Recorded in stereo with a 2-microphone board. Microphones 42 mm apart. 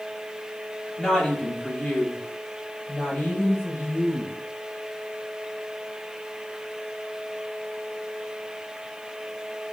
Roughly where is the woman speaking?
Centre.